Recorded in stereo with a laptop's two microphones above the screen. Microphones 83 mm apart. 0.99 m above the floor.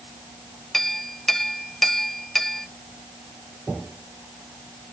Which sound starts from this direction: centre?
A clink, at 0.7 s.